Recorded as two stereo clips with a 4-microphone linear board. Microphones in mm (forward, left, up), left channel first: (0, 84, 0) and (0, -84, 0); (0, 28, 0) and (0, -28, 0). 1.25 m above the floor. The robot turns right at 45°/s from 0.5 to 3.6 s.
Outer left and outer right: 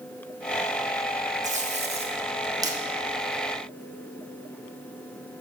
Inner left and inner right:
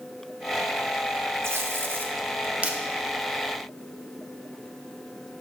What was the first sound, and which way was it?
Tape being pulled, 45° right (ahead or behind).